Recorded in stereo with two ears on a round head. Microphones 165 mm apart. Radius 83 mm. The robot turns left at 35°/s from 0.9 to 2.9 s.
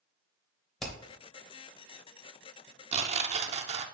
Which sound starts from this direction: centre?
Hammering, at 0.8 s.